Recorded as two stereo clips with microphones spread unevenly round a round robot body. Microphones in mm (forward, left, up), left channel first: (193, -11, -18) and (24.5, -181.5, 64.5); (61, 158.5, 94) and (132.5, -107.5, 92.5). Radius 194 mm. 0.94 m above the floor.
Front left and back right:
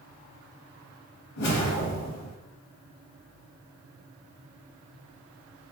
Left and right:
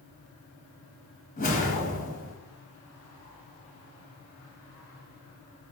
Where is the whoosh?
45° left, 1.7 m.